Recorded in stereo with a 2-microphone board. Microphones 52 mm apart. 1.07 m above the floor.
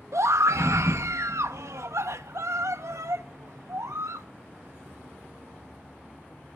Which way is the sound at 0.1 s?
85° right.